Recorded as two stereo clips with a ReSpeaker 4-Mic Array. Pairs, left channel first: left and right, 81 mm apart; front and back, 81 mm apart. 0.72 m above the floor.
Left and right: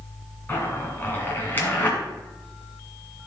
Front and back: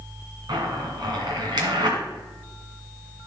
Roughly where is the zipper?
Behind left.